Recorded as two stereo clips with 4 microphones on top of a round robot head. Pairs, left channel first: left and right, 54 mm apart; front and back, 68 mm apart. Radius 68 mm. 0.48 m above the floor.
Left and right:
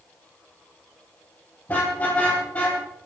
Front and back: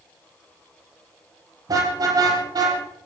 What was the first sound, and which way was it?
A car horn, 155° left.